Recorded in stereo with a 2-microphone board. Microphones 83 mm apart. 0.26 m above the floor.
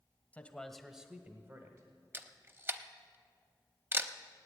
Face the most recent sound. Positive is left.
turn(degrees=-30)  # may be behind; listen again after turning